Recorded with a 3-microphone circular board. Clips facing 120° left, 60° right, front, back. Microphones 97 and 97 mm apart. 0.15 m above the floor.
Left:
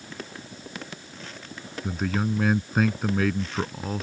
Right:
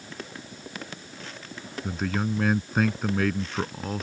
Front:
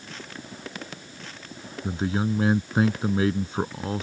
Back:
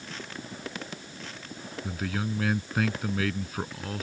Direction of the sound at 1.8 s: 35° left.